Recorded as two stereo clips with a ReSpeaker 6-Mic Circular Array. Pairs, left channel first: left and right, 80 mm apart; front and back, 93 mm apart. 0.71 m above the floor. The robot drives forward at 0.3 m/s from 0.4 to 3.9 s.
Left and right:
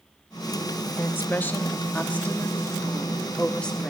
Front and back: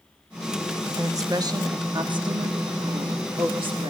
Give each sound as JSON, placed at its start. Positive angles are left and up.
{"t": 1.0, "sound": "a woman speaking", "azimuth_deg": 140, "distance_m": 0.6}